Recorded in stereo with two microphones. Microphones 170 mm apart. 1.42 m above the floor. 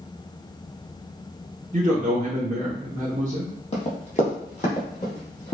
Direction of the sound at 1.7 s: 45° right (ahead or behind).